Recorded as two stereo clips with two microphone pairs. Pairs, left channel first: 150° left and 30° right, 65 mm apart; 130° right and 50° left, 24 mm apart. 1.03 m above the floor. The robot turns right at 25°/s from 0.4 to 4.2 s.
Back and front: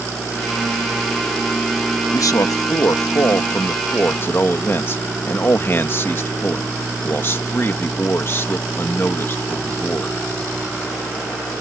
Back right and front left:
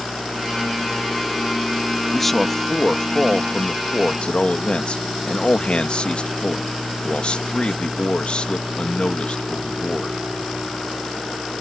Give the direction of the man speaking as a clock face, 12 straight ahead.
7 o'clock.